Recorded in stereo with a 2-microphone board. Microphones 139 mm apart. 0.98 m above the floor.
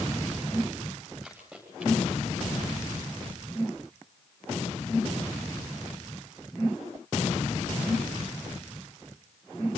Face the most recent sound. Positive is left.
turn(degrees=-15)  # may be behind; listen again after turning